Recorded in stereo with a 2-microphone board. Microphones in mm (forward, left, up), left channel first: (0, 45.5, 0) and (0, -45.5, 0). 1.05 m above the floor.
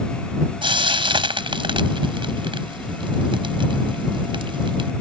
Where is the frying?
70° right (ahead or behind).